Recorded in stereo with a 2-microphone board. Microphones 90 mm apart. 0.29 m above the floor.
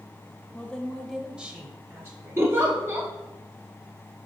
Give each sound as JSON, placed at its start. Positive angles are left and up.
{"t": 0.5, "sound": "a woman speaking", "side_deg": 15, "distance_m": 0.9}
{"t": 2.4, "sound": "a giggle", "side_deg": -30, "distance_m": 1.8}